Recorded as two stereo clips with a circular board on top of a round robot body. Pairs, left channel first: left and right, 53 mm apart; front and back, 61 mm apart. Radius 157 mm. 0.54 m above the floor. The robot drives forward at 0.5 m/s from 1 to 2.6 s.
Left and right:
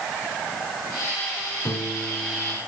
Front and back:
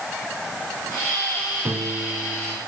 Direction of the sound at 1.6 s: 130° left.